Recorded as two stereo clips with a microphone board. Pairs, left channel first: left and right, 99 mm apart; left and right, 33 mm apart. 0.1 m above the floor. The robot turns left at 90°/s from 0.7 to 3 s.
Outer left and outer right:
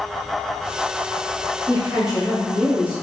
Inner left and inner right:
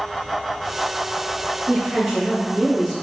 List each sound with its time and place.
1.7 s a woman speaking: 20° right (ahead or behind), 1.2 m; by 2.9 s 20° left (ahead or behind), 1.2 m